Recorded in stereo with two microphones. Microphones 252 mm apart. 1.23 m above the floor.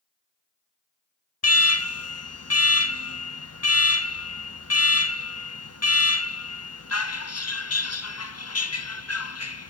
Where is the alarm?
75° left (ahead or behind), 0.7 m.